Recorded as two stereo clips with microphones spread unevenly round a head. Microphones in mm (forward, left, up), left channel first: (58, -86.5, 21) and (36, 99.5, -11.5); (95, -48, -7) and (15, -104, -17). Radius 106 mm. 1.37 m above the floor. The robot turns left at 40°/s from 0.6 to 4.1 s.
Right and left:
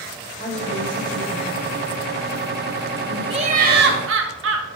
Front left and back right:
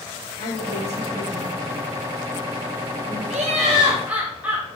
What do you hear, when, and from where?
0.4 s a woman speaking: 170° left, 2.5 m; by 3.2 s 65° left, 2.5 m
3.3 s laughter: 165° left, 1.3 m; by 4.7 s 130° left, 1.3 m